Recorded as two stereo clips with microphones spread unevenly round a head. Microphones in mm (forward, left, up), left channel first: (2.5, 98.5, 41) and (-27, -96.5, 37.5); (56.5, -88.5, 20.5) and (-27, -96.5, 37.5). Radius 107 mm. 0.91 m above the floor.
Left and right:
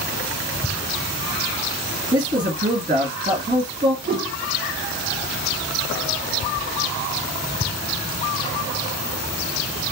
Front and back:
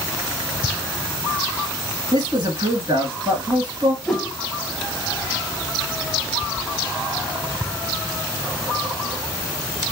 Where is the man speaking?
135° right, 1.7 m.